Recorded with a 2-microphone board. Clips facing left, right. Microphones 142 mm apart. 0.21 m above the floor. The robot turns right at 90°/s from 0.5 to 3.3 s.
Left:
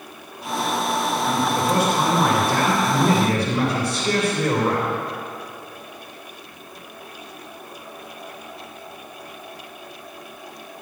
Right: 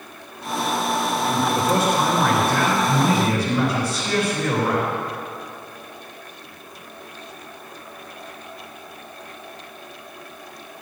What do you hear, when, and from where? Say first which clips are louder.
1.2 s a man speaking: right 1 dB; 40° right, 3 m; by 4.9 s 145° left, 3 m